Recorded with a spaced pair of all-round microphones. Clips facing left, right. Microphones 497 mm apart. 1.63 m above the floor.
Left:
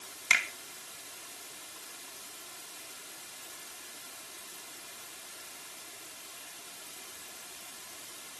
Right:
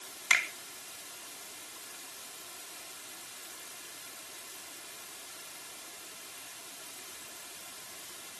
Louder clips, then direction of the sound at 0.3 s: Even; 50° left (ahead or behind).